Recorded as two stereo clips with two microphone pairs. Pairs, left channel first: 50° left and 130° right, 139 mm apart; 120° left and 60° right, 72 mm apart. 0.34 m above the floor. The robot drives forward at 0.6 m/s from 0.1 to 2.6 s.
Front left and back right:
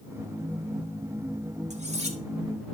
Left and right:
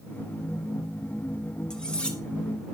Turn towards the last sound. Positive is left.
turn(degrees=-165)